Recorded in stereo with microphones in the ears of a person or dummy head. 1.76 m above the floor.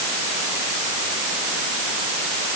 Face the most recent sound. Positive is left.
No sound to turn to.